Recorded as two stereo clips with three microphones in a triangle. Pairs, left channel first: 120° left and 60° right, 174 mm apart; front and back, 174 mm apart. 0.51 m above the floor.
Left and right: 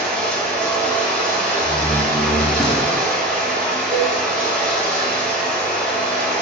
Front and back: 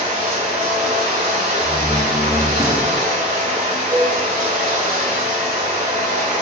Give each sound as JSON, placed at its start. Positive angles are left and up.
{"t": 0.0, "sound": "running water", "azimuth_deg": -155, "distance_m": 2.0}
{"t": 1.6, "sound": "a door slam", "azimuth_deg": -150, "distance_m": 0.8}
{"t": 3.9, "sound": "a cowbell", "azimuth_deg": -120, "distance_m": 1.8}